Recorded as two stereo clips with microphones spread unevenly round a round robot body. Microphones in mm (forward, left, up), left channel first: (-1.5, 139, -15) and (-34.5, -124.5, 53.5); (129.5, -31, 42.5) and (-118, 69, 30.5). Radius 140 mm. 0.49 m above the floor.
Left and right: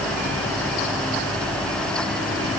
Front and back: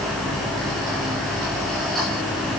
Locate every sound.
Only background noise.